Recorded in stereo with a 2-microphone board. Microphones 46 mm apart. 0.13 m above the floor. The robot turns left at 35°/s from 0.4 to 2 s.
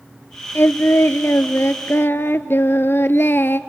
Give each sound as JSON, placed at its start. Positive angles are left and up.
{"t": 0.6, "sound": "singing", "azimuth_deg": 120, "distance_m": 0.5}